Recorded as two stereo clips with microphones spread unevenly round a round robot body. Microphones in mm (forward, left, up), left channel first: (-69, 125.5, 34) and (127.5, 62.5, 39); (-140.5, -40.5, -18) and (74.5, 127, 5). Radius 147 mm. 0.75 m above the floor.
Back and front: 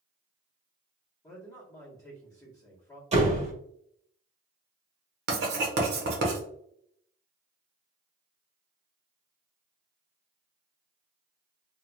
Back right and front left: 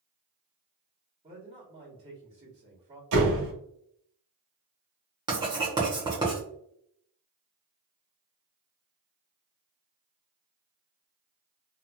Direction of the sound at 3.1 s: 40° left.